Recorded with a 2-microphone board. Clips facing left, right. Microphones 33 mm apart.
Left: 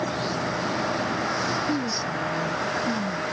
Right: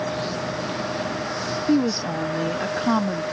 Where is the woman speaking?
65° right (ahead or behind).